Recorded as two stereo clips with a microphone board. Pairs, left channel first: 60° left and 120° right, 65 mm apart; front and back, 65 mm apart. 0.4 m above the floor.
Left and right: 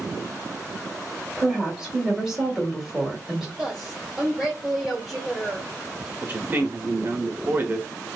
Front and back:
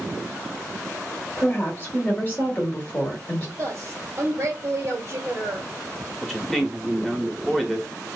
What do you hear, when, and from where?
1.4 s a woman speaking: 40° right, 1.2 m
3.6 s a woman speaking: 160° left, 1.5 m
6.2 s a man speaking: 80° right, 0.9 m